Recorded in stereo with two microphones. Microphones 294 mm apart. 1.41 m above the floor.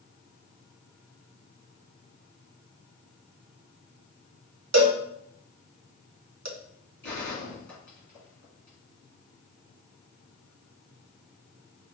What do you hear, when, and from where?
4.7 s a cowbell: 65° right (ahead or behind), 0.8 m
7.0 s a gunshot: 70° left (ahead or behind), 2.5 m